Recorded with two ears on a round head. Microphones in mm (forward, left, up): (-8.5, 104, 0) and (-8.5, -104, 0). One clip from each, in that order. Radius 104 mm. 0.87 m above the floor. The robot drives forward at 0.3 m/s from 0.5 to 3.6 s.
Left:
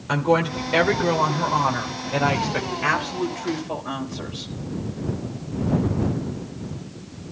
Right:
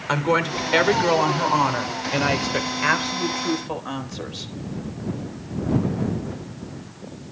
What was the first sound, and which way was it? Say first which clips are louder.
A woman speaking: even; 35° right (ahead or behind).